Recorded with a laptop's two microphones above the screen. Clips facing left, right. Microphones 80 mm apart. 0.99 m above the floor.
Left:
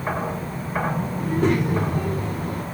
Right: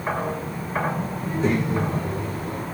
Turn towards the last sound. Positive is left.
turn(degrees=50)  # may be behind; listen again after turning